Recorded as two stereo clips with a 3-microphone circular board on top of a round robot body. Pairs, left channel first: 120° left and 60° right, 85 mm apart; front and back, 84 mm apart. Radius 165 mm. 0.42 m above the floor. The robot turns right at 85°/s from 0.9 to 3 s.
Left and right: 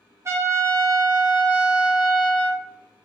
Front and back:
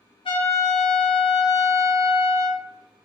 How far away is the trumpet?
About 0.7 m.